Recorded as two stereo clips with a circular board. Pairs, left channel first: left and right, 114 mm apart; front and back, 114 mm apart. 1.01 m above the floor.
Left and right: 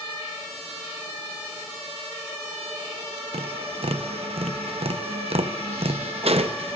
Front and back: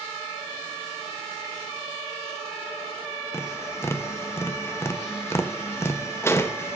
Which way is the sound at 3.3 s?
65° right.